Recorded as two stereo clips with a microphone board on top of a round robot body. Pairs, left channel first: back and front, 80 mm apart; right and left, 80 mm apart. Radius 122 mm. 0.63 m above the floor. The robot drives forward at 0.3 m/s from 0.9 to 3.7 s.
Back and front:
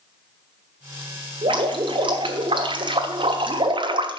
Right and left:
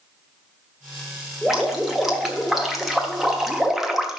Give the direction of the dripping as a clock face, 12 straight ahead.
12 o'clock.